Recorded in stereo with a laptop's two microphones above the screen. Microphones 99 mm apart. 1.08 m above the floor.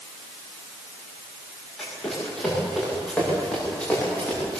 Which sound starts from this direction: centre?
Running footsteps, at 1.8 s.